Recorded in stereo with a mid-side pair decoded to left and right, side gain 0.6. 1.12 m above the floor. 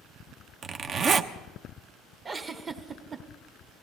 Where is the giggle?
30° right, 1.2 m.